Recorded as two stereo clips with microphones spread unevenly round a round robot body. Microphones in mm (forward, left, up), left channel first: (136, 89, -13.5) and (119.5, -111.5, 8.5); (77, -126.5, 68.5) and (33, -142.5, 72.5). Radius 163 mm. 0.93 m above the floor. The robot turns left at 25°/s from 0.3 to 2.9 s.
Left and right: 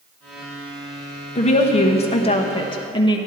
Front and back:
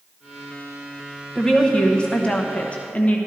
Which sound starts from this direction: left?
A woman speaking, at 1.4 s.